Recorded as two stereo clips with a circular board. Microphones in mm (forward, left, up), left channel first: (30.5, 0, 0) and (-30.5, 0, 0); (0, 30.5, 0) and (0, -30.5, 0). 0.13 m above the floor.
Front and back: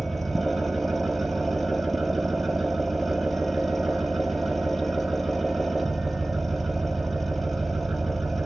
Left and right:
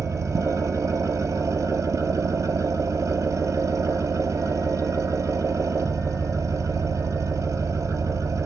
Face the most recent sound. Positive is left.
turn(degrees=-85)